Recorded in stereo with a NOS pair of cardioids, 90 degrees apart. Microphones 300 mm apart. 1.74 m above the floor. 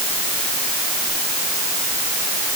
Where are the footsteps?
No footsteps in this recording.